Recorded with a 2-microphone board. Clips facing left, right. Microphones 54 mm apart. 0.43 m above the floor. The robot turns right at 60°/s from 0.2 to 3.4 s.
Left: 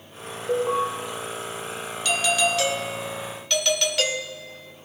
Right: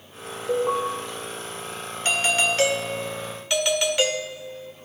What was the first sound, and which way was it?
An alarm, centre (ahead or behind).